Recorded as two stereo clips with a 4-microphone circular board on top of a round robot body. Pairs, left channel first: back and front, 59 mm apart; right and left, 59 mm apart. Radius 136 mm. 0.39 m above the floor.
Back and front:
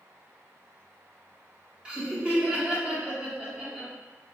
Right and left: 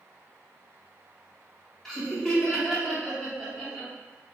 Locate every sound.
1.9 s laughter: 25° right, 1.3 m